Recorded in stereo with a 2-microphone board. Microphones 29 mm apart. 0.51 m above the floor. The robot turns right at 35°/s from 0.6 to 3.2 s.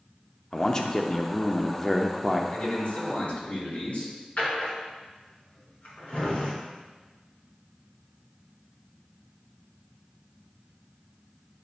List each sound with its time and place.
0.5 s a man speaking: 25° left (ahead or behind), 0.7 m; by 2.4 s centre (ahead or behind), 0.7 m
2.5 s a man speaking: 70° left (ahead or behind), 3.5 m; by 4.1 s 65° left (ahead or behind), 3.5 m
4.4 s a drawer: 70° left (ahead or behind), 3.5 m